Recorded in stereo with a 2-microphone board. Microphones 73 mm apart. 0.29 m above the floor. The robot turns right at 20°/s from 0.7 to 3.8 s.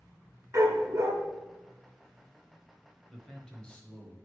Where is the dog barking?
45° right (ahead or behind), 1.6 m; by 1.1 s 50° right (ahead or behind), 1.6 m.